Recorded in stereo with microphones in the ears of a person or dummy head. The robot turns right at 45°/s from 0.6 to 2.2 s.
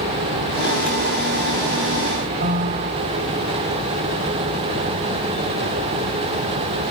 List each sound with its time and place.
2.4 s a piano: 45° right (ahead or behind)